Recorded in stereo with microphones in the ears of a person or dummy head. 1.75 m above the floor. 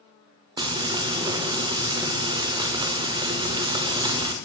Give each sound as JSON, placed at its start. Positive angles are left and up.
{"t": 0.6, "sound": "frying", "side_deg": -25, "distance_m": 0.5}